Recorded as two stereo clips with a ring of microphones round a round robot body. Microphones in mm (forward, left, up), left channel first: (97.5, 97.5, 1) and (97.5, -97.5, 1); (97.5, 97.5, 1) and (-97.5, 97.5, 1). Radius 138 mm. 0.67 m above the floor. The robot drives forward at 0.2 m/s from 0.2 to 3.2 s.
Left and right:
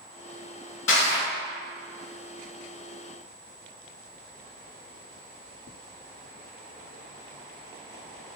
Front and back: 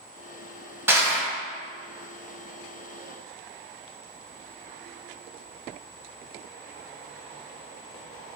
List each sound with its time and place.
0.9 s crushing: 100° left, 0.8 m; by 1.3 s 110° left, 0.9 m